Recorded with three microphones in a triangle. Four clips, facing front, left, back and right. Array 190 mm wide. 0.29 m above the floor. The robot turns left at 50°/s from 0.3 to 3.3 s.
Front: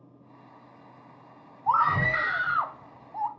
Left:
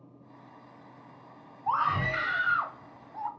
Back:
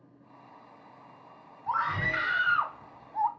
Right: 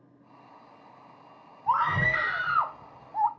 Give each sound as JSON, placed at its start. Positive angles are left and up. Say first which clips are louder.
{"t": 1.7, "sound": "a scream", "louder": "right 2 dB, front 7 dB", "azimuth_deg": 0, "distance_m": 1.1}